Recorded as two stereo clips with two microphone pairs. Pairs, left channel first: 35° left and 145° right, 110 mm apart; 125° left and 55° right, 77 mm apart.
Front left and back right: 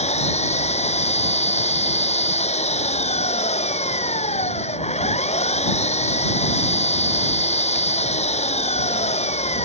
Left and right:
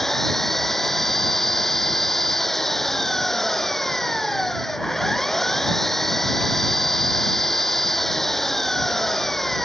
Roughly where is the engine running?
Ahead left.